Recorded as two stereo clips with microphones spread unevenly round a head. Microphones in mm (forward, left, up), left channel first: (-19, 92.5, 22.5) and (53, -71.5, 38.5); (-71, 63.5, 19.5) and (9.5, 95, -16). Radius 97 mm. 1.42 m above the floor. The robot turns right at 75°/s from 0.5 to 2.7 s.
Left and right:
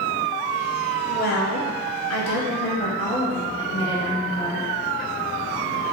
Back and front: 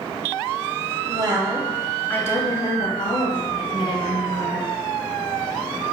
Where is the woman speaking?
60° left, 0.7 m; by 4.7 s straight behind, 0.7 m.